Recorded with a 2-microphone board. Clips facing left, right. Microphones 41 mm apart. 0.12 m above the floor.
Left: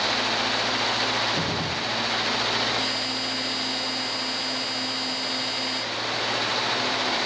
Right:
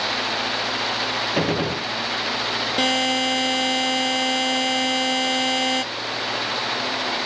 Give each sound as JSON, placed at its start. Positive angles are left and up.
{"t": 1.4, "sound": "a gunshot", "side_deg": -50, "distance_m": 0.8}
{"t": 2.8, "sound": "a buzzer", "side_deg": -65, "distance_m": 1.3}